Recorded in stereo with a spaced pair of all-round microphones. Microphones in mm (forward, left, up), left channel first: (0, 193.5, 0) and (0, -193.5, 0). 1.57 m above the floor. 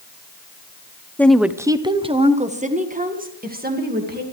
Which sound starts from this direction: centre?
A woman speaking, at 1.2 s.